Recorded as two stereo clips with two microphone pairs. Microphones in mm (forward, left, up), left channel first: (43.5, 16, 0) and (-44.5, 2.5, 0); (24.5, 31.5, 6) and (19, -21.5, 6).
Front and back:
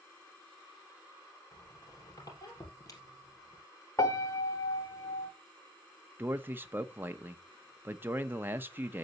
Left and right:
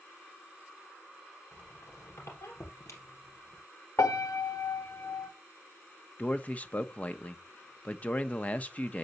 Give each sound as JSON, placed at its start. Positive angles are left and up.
{"t": 1.5, "sound": "a squeak", "azimuth_deg": 60, "distance_m": 3.0}
{"t": 4.0, "sound": "a piano", "azimuth_deg": 60, "distance_m": 1.5}
{"t": 6.2, "sound": "a man speaking", "azimuth_deg": 130, "distance_m": 0.6}